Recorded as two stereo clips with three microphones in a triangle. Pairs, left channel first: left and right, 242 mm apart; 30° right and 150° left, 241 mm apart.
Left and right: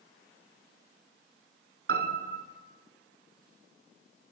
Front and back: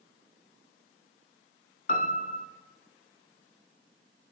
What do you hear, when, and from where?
1.9 s a piano: 80° right, 0.6 m